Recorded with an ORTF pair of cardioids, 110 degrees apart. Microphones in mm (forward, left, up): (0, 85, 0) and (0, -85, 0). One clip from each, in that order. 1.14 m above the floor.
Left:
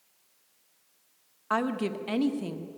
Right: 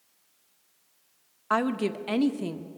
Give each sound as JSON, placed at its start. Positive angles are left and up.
{"t": 1.5, "sound": "a woman speaking", "azimuth_deg": -15, "distance_m": 1.4}